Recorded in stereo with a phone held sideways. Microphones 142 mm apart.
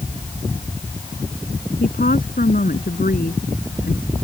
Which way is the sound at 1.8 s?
85° left.